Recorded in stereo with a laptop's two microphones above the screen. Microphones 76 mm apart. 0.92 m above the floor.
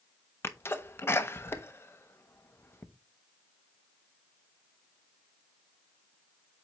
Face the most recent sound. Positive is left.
turn(degrees=30)  # may be behind; listen again after turning